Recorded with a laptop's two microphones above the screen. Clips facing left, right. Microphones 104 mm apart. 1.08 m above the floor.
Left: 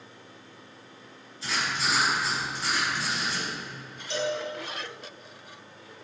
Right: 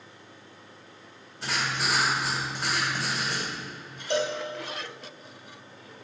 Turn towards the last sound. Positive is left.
turn(degrees=-55)  # may be behind; listen again after turning